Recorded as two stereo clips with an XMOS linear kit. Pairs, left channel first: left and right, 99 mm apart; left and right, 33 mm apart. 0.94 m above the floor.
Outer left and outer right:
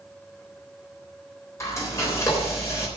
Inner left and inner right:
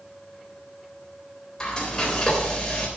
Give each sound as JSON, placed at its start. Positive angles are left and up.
{"t": 1.6, "sound": "frying", "side_deg": 30, "distance_m": 3.5}